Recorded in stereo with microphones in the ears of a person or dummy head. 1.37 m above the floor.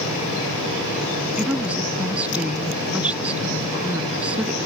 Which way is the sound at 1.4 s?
5° right (ahead or behind).